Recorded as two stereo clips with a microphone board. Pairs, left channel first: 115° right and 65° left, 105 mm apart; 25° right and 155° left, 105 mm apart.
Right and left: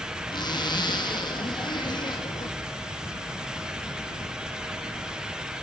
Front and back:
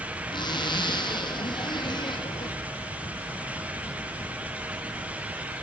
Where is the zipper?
65° right, 4 m.